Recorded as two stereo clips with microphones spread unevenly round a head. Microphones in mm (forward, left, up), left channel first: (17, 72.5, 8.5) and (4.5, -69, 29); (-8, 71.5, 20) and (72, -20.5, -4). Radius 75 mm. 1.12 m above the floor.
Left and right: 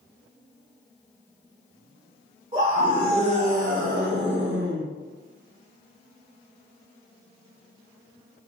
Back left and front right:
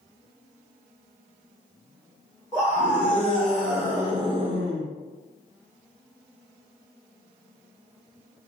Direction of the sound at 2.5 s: 155° right.